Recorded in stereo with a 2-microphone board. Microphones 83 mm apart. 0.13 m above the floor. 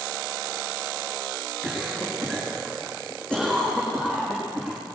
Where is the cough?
10° left (ahead or behind), 6.5 m.